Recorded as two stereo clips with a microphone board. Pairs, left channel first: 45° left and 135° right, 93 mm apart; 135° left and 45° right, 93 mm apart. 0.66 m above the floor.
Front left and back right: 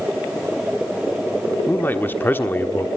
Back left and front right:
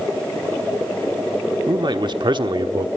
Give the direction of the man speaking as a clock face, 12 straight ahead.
1 o'clock.